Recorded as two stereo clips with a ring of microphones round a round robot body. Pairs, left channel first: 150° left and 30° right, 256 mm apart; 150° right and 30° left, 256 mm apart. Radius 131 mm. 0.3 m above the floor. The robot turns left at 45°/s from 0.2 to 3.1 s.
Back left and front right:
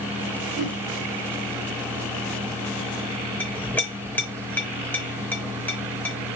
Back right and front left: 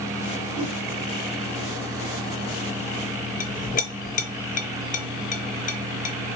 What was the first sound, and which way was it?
A whoosh, 155° right.